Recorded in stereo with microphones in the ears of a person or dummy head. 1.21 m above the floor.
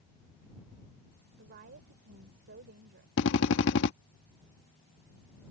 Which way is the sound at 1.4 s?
50° right (ahead or behind).